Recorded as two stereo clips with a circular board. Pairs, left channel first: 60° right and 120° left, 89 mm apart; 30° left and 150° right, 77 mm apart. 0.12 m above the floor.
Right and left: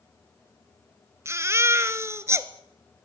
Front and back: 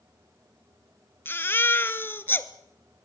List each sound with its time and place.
1.2 s a baby crying: 75° left, 1.2 m